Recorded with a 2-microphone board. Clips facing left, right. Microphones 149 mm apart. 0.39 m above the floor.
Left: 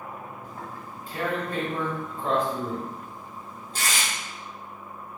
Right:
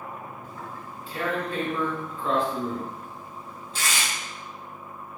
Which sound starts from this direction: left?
Tearing paper, at 0.4 s.